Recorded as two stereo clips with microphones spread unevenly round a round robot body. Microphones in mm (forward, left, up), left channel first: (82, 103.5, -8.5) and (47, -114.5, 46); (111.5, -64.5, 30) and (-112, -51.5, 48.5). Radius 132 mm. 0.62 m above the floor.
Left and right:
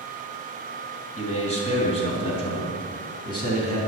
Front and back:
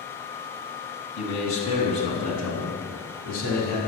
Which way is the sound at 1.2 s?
25° left.